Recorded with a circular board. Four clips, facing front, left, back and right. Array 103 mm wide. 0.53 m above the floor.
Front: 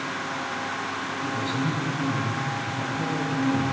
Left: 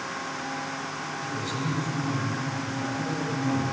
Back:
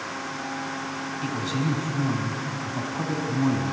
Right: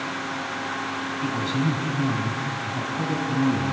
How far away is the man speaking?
About 3 m.